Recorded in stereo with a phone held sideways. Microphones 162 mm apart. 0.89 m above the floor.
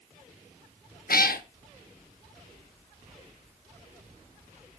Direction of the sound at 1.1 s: 75° left (ahead or behind).